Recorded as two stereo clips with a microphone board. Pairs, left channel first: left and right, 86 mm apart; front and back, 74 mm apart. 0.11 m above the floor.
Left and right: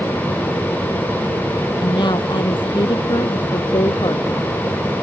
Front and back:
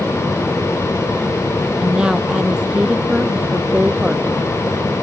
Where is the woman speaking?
105° left.